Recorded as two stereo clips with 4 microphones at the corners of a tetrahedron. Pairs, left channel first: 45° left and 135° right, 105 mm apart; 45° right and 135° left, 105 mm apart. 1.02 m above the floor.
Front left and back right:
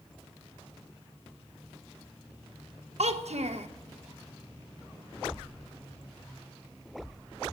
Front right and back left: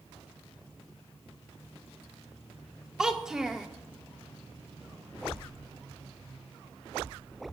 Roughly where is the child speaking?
Behind right.